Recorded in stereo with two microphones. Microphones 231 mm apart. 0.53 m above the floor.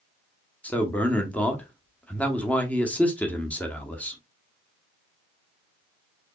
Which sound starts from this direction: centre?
A man speaking, at 0.6 s.